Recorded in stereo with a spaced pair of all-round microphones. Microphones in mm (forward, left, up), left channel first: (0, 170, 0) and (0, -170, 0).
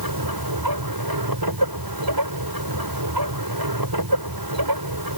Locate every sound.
0.0 s a machine running: 85° right